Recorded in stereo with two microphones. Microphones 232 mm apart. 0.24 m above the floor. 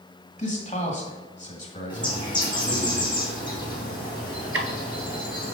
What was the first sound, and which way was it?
A man speaking, 30° left (ahead or behind).